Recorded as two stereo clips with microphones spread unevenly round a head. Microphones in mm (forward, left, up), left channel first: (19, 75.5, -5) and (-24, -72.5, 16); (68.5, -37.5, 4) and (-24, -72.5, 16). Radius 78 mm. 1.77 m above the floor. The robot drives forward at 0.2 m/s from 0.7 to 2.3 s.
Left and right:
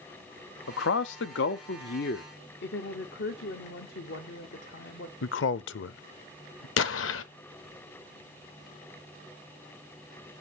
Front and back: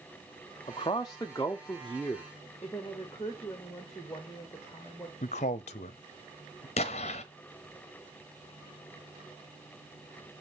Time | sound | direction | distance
0.7 | a man speaking | 85° left | 0.7 m
2.6 | a woman speaking | 100° left | 1.1 m
5.2 | a man speaking | 60° left | 0.5 m
6.8 | an explosion | 70° left | 0.8 m